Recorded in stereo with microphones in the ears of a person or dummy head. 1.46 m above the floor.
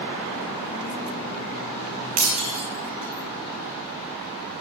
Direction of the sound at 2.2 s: 30° right (ahead or behind).